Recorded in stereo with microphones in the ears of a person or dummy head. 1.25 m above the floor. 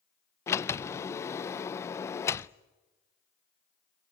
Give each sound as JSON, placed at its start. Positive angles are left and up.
{"t": 0.5, "sound": "a sliding door", "side_deg": 15, "distance_m": 0.5}